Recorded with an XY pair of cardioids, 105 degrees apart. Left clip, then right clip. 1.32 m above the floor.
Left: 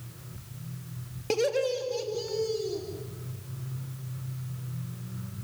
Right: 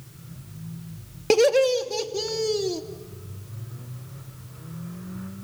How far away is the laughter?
About 2 m.